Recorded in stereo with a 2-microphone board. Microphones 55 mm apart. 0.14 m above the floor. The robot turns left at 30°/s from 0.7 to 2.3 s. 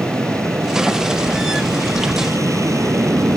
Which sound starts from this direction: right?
An aircraft, at 0.0 s.